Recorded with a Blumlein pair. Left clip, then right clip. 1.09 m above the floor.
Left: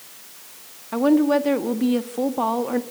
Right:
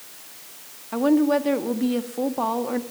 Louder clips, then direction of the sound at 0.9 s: Left 2 dB; 5° left.